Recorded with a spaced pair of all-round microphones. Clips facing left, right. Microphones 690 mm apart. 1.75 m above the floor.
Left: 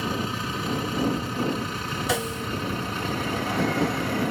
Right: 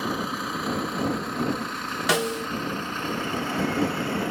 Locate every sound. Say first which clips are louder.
0.0 s a vehicle: even; 55° left (ahead or behind); by 4.3 s 60° left (ahead or behind)
2.1 s a snare drum: right 4 dB; 80° right